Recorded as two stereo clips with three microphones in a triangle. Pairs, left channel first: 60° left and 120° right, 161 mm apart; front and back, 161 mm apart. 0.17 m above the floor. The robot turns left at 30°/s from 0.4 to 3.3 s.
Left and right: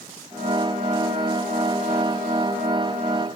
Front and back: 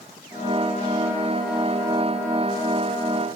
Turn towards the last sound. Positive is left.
No sound to turn to.